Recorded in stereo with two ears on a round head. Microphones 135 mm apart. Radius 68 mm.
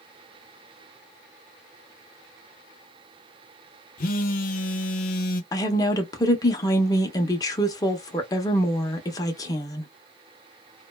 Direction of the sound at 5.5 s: 20° left (ahead or behind).